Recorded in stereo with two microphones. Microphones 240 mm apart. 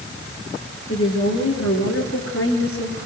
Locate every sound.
0.9 s a woman speaking: 60° left (ahead or behind), 7.5 m; by 3.1 s 65° left (ahead or behind), 6 m